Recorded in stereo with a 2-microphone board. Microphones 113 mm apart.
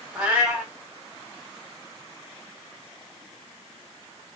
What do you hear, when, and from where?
0.1 s a cat meowing: 15° right (ahead or behind), 1.8 m